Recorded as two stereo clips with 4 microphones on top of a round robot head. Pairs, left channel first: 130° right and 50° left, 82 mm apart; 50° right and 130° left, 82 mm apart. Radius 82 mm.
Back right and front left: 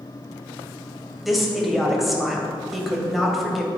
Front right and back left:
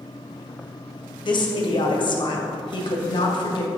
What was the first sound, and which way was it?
A woman speaking, 40° right.